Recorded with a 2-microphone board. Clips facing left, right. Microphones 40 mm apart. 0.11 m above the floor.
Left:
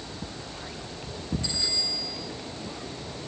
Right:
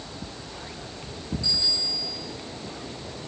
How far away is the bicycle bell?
About 8 m.